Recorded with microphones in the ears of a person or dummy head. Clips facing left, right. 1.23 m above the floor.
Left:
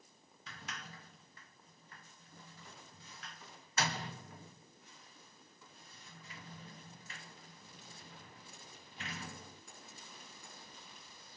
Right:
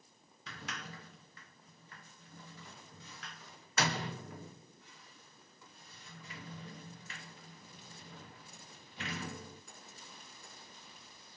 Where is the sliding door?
50° right (ahead or behind).